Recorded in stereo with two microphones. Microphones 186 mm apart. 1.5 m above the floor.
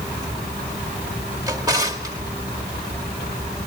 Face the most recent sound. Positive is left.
turn(degrees=-20)  # may be behind; listen again after turning